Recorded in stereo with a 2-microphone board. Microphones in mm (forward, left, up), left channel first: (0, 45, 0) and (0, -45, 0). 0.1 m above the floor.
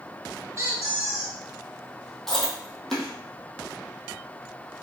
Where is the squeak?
30° right (ahead or behind), 1.3 m.